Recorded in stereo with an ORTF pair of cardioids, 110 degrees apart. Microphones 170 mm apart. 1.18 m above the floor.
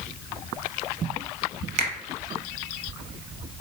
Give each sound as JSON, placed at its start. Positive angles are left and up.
{"t": 1.8, "sound": "a finger snap", "azimuth_deg": -45, "distance_m": 0.7}